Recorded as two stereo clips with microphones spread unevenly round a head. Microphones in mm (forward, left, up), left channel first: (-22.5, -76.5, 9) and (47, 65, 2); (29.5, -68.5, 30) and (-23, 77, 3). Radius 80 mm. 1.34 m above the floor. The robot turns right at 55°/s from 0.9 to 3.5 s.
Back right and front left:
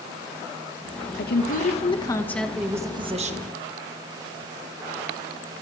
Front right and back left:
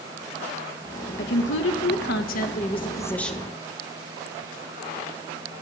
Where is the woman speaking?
100° right, 1.8 m; by 3.4 s 25° left, 1.8 m.